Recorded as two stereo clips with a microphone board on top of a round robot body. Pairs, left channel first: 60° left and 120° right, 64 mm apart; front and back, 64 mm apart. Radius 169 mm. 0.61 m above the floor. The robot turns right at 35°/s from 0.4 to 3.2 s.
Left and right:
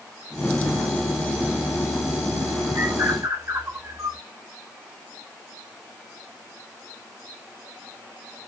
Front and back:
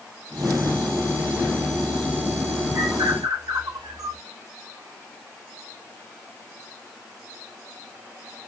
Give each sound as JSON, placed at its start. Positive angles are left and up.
{"t": 2.8, "sound": "a bird", "azimuth_deg": -170, "distance_m": 2.0}